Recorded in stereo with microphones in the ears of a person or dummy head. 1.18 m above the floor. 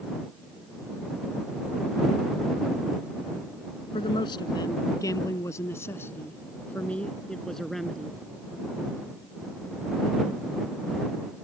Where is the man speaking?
30° left (ahead or behind); by 8.2 s centre (ahead or behind).